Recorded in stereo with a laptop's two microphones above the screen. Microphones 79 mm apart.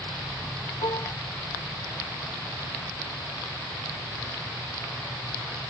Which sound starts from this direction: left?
Dishes clattering, at 0.8 s.